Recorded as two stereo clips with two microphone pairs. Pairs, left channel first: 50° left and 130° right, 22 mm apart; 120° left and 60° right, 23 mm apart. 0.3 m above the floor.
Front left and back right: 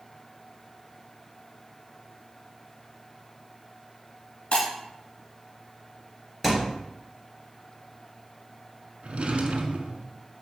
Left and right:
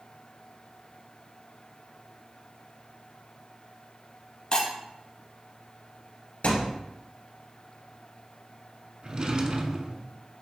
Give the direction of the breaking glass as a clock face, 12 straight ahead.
9 o'clock.